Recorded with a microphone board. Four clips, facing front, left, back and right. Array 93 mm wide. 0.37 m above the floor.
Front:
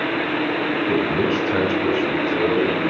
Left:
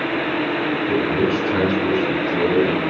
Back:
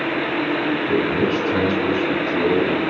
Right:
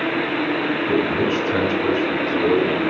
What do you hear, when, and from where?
0.9 s a man speaking: 105° right, 1.3 m; by 2.9 s 15° left, 1.5 m